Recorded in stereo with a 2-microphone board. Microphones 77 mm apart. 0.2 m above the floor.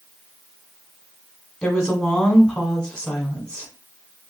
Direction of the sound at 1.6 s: 10° left (ahead or behind).